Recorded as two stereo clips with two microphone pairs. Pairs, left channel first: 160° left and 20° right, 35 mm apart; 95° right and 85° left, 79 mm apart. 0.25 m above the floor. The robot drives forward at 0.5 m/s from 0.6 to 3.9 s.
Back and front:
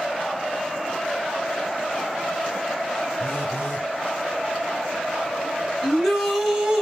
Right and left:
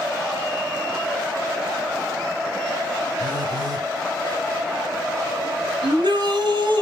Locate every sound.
3.2 s a phone buzzing: 120° left, 4.5 m; by 3.9 s 125° left, 4.5 m
5.8 s a shout: 80° left, 3 m